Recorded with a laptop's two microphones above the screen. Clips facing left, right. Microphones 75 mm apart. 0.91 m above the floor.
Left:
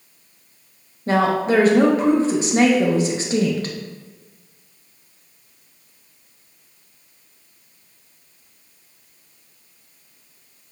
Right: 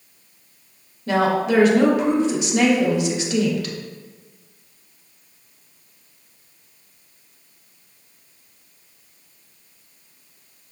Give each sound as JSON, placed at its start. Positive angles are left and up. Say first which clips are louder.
{"t": 1.1, "sound": "a woman speaking", "louder": "left 1 dB", "side_deg": 35, "distance_m": 0.7}